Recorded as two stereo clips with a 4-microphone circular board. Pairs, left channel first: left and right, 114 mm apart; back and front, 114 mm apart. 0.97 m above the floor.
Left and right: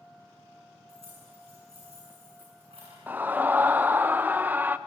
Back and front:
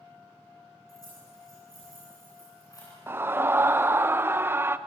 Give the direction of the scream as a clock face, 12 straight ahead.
1 o'clock.